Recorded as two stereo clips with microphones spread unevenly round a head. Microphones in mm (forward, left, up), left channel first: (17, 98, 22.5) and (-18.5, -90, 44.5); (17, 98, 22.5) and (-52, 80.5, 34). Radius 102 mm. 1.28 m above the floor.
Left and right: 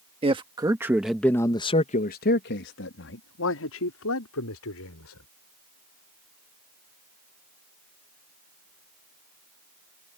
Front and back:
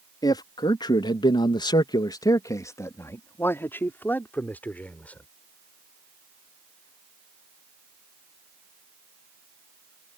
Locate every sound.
0.2 s a man speaking: 35° right; by 5.3 s 85° left